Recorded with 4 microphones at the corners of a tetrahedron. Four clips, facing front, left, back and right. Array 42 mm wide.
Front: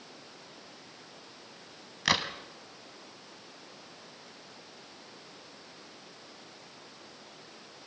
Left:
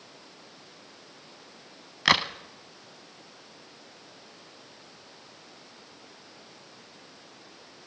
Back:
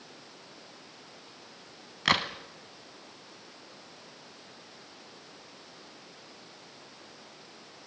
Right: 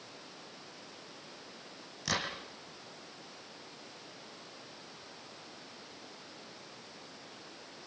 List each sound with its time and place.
2.0 s a crack: 100° left, 1.5 m